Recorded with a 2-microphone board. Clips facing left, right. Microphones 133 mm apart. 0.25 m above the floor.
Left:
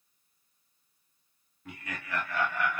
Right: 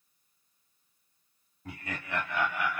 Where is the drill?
I don't hear a drill.